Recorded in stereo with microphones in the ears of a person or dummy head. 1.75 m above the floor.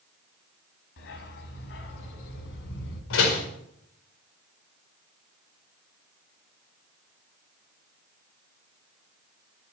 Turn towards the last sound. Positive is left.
turn(degrees=75)  # may be behind; listen again after turning